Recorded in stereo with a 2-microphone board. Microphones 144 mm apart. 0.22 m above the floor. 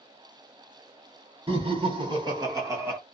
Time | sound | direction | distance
1.5 | laughter | 35° right (ahead or behind) | 1.4 m